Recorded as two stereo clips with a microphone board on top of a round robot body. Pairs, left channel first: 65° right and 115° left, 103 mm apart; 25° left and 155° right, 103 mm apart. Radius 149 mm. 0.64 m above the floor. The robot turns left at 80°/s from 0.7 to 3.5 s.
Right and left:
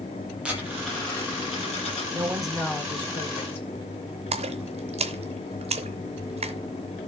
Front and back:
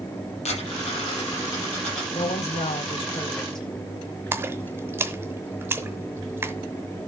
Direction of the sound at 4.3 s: 135° left.